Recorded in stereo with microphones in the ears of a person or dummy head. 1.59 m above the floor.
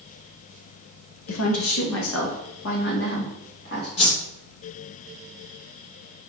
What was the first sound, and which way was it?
A woman speaking, 80° left.